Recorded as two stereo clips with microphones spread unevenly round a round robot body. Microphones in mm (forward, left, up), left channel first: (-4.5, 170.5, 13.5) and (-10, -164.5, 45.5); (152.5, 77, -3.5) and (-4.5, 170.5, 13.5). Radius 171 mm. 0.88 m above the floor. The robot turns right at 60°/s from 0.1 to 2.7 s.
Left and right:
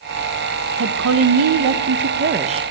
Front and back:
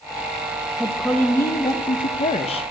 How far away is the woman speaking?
About 0.6 m.